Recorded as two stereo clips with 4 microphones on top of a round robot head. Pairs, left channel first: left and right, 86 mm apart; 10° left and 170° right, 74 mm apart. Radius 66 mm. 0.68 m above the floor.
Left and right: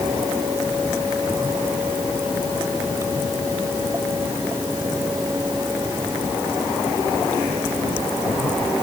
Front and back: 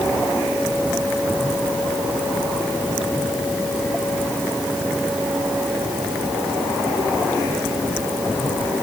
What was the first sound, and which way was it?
Only background noise.